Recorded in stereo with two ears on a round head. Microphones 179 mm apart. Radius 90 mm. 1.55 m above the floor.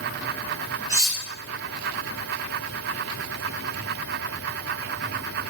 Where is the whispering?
No whispering in this recording.